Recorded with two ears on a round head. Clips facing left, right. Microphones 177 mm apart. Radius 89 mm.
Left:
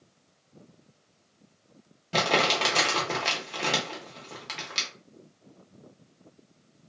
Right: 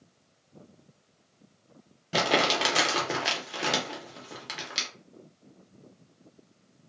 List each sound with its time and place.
2.1 s crumpling: 5° right (ahead or behind), 0.7 m